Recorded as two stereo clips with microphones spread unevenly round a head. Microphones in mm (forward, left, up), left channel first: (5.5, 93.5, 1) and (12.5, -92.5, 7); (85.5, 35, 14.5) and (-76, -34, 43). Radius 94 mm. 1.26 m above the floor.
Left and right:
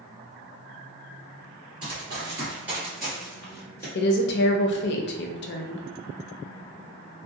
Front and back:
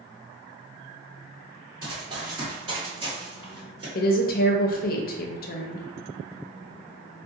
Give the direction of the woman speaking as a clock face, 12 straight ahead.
10 o'clock.